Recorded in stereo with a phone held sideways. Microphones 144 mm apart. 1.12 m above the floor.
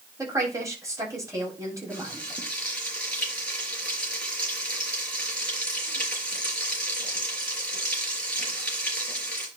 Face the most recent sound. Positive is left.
turn(degrees=5)  # may be behind; listen again after turning